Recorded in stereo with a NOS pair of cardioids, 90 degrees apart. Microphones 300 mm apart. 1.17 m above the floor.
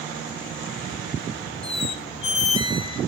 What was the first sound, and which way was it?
A squeak, 20° left.